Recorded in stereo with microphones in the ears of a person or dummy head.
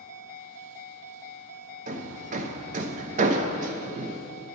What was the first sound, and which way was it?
Hammering, 45° right (ahead or behind).